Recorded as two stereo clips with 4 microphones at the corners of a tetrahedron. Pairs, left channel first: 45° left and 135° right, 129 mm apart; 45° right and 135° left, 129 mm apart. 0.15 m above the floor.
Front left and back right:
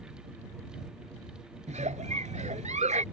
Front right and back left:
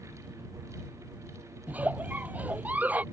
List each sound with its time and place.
1.7 s a giggle: 150° right